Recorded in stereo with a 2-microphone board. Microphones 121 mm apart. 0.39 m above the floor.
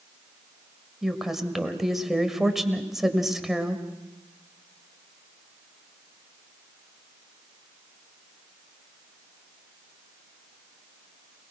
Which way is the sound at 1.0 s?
5° right (ahead or behind).